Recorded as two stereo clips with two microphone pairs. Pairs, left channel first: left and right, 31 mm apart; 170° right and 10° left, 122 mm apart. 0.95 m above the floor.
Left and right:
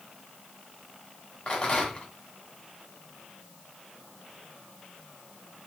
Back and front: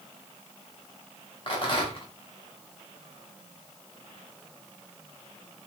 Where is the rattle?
150° left, 1.5 m.